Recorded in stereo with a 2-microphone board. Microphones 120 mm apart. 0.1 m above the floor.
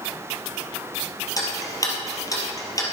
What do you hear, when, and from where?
1.4 s ticking: 30° left (ahead or behind), 3 m